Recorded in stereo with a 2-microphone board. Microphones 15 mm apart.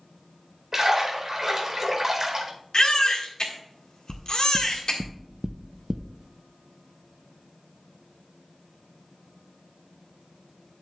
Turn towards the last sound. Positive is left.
turn(degrees=-50)  # may be behind; listen again after turning